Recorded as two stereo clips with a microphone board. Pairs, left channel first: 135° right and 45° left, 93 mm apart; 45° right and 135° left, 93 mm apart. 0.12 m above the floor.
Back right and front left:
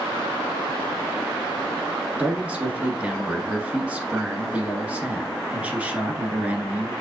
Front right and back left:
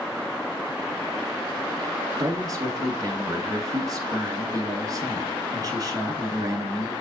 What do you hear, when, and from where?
2.2 s a man speaking: 115° left, 1.5 m